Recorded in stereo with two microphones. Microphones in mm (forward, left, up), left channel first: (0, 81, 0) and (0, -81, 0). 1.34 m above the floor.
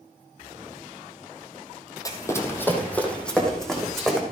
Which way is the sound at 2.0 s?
25° left (ahead or behind).